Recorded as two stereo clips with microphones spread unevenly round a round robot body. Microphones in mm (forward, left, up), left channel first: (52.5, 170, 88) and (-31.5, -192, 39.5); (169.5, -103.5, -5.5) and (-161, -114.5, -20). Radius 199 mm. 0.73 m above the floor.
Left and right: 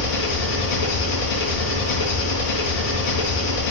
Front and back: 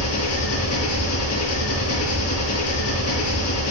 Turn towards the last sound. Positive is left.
turn(degrees=75)